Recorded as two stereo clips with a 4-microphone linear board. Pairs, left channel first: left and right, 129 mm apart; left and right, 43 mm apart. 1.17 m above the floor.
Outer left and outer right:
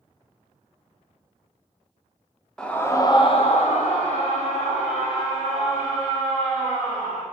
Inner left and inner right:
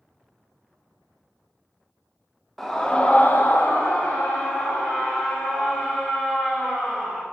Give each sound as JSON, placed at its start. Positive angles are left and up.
{"t": 2.6, "sound": "a scream", "side_deg": 5, "distance_m": 0.6}